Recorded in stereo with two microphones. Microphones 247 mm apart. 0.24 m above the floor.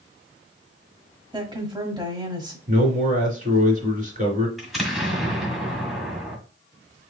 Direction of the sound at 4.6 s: Centre (ahead or behind).